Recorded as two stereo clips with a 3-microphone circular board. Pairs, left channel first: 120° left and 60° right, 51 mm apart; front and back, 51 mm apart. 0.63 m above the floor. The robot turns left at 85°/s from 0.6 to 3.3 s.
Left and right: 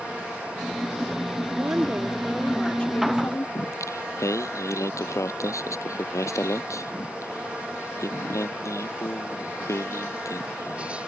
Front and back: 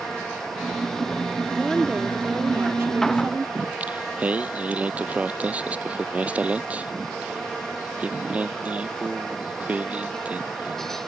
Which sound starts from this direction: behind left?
Singing, at 3.5 s.